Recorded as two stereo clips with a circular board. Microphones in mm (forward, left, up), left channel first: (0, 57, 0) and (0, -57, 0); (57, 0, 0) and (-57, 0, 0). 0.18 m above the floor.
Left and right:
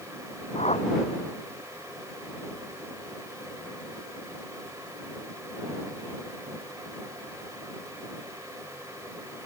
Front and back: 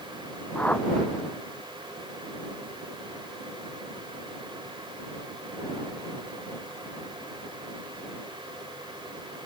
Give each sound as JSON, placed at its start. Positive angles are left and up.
{"t": 0.6, "sound": "a whoosh", "azimuth_deg": 80}